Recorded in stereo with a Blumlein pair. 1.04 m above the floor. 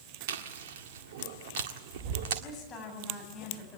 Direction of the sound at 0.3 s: 55° right.